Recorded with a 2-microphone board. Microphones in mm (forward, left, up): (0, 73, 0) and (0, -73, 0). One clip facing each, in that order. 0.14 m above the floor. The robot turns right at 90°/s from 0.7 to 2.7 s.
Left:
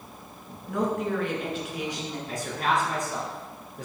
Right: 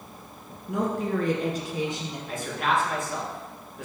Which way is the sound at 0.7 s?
150° right.